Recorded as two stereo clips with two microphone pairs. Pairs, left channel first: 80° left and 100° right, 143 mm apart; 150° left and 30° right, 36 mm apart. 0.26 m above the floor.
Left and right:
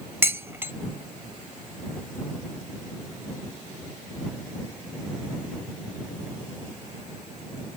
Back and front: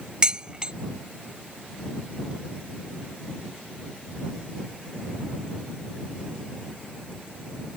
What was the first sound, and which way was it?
Dishes clattering, 50° right.